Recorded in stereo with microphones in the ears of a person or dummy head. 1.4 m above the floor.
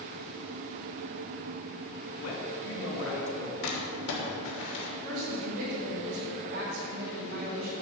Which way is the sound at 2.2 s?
85° left.